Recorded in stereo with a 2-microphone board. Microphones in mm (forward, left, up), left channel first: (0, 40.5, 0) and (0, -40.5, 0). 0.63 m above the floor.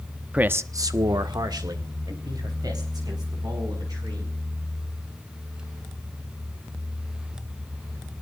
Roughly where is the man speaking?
Centre.